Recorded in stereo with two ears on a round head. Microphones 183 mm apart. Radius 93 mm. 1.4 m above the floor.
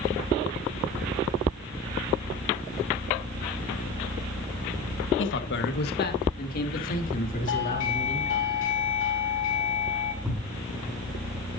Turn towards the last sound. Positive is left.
turn(degrees=-10)  # may be behind; listen again after turning